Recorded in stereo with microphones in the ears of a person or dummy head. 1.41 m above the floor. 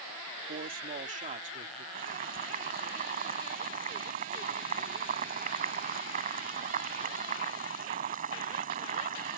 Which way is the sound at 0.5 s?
40° right (ahead or behind).